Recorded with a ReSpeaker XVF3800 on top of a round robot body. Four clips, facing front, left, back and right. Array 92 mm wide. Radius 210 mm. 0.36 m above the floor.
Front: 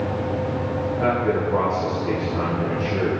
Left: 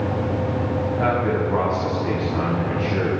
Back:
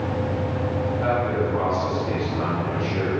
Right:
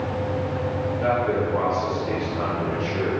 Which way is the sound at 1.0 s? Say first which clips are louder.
Even, front 2 dB; 70° left.